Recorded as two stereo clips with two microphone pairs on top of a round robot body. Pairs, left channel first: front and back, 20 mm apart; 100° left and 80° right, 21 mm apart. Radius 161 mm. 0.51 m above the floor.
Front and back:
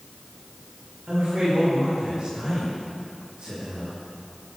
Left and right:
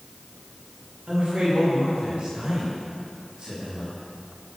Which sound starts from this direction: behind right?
A man speaking, at 1.1 s.